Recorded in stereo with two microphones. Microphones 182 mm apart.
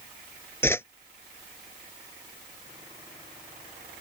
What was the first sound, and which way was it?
A whoosh, 15° left (ahead or behind).